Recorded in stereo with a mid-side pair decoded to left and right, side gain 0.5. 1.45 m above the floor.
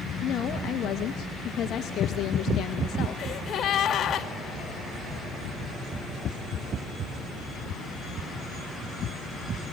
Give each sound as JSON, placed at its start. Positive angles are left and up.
{"t": 0.2, "sound": "a woman speaking", "azimuth_deg": 60, "distance_m": 2.0}
{"t": 3.2, "sound": "a gasp", "azimuth_deg": 50, "distance_m": 3.0}